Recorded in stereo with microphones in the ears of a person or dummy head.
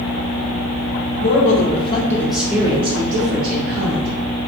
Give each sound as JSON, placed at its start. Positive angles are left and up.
{"t": 1.2, "sound": "a man speaking", "side_deg": 60, "distance_m": 1.1}